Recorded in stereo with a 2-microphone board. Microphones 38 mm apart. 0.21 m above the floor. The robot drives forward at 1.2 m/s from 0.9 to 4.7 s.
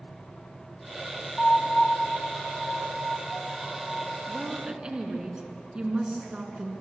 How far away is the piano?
About 0.8 m.